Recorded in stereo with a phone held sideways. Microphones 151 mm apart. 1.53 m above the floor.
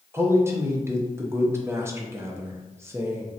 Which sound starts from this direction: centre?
A man speaking, at 0.1 s.